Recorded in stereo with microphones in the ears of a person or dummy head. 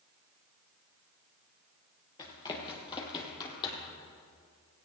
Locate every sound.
2.2 s running footsteps: 25° left (ahead or behind), 2 m